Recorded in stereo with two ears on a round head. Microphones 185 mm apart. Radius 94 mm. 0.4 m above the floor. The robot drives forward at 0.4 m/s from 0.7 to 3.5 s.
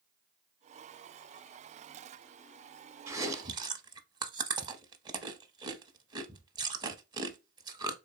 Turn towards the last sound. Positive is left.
turn(degrees=-20)  # may be behind; listen again after turning